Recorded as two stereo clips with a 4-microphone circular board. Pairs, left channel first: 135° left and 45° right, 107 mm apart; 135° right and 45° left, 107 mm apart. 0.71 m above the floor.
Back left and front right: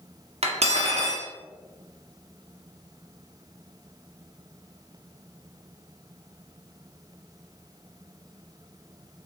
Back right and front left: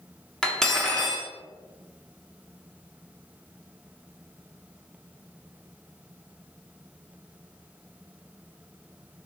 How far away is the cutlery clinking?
About 0.5 m.